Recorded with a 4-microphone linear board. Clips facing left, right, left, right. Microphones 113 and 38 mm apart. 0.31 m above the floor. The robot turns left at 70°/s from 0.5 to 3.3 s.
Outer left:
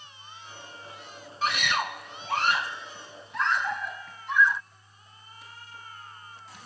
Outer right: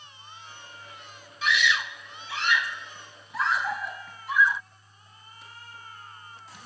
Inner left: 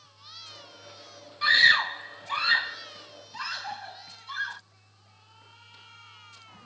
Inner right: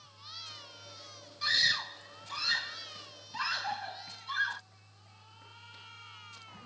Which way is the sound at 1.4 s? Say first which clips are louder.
Outer right 1 dB, inner left 10 dB; 40° left (ahead or behind).